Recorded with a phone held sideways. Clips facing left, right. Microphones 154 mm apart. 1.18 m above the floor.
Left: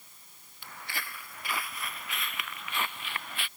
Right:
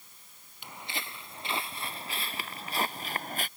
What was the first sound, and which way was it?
Footsteps, 20° right (ahead or behind).